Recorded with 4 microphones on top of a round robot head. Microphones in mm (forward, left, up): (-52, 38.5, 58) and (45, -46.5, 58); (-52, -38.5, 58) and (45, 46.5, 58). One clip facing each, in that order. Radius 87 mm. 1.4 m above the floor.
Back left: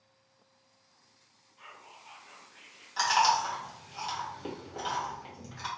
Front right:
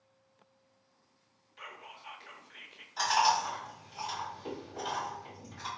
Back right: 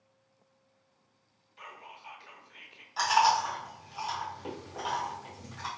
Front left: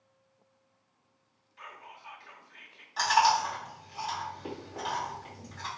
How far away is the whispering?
About 0.6 m.